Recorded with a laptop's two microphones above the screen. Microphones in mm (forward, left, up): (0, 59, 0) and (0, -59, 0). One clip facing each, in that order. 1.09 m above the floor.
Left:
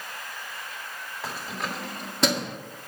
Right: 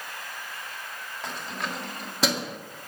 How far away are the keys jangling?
About 1.9 m.